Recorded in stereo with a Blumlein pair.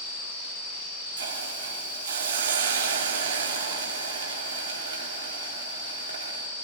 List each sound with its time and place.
1.2 s a hiss: 60° right, 3.5 m